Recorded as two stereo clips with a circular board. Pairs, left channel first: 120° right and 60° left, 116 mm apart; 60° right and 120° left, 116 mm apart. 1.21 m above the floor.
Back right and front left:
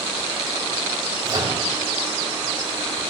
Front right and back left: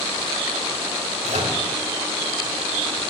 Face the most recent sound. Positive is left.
turn(degrees=115)